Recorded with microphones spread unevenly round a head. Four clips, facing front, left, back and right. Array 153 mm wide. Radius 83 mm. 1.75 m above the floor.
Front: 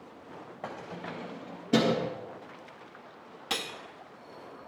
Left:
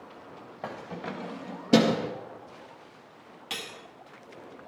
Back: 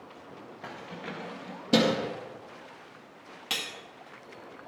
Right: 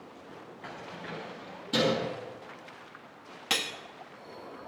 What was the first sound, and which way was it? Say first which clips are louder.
Keys jangling: left 6 dB, front 1 dB; 70° left.